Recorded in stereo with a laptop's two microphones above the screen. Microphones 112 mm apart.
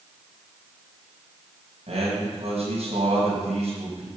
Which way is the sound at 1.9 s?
70° right (ahead or behind).